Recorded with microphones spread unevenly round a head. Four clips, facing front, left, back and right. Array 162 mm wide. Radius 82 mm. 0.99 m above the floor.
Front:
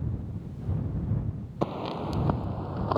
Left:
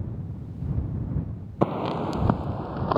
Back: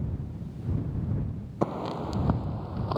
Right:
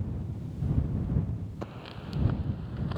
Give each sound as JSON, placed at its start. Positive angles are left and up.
{"t": 1.6, "sound": "footsteps", "azimuth_deg": 95}